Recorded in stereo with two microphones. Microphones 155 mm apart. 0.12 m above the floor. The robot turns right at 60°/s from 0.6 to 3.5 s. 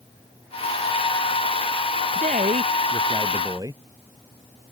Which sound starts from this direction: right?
A man speaking, at 2.1 s.